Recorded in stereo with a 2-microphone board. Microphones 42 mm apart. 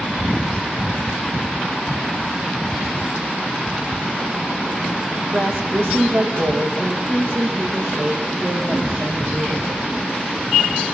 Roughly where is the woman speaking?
Right.